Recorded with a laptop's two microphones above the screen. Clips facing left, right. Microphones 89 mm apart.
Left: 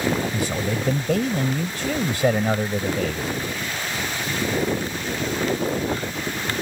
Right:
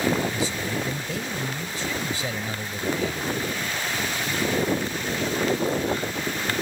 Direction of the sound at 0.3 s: 60° left (ahead or behind).